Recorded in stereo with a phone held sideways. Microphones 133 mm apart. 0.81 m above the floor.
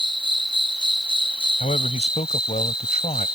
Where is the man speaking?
60° left (ahead or behind).